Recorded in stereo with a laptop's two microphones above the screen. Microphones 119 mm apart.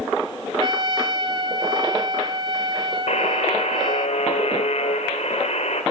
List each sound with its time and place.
0.6 s a trumpet: 45° right (ahead or behind), 1.3 m
3.1 s a buzzer: 70° left (ahead or behind), 3.5 m